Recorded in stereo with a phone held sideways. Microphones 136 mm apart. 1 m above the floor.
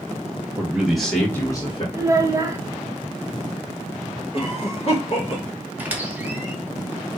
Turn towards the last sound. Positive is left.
turn(degrees=-10)  # may be behind; listen again after turning